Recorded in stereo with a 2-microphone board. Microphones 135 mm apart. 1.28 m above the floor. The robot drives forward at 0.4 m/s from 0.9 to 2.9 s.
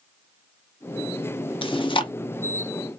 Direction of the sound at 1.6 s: 40° left (ahead or behind).